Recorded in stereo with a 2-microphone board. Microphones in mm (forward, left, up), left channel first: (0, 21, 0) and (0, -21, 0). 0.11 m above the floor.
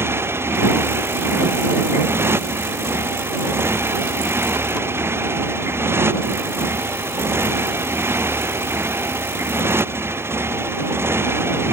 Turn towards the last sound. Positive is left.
turn(degrees=-75)  # may be behind; listen again after turning